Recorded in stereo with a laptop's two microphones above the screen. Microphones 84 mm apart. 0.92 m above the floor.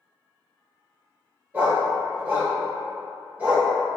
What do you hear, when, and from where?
1.5 s a dog barking: 20° right (ahead or behind), 1.2 m